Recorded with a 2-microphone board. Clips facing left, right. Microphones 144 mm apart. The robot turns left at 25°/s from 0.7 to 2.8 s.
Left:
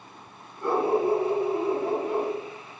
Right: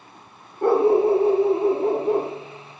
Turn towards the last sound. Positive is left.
turn(degrees=-145)